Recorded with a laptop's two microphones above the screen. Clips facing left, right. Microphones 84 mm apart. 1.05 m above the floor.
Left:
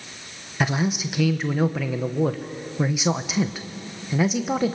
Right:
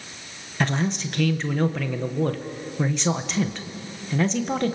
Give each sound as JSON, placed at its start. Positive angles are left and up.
{"t": 0.6, "sound": "a man speaking", "side_deg": 10, "distance_m": 0.8}